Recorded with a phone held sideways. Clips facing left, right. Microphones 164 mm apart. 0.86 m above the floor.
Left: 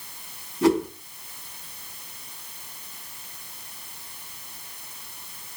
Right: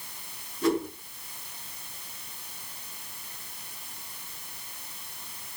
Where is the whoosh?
80° left, 3 m.